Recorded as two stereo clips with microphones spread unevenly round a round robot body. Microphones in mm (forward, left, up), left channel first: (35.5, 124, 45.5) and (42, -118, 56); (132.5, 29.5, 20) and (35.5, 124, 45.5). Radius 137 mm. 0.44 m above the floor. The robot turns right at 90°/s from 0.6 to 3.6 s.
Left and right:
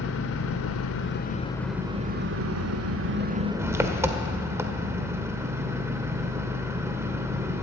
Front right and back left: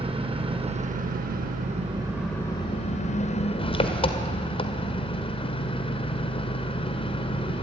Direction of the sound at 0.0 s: 80° left.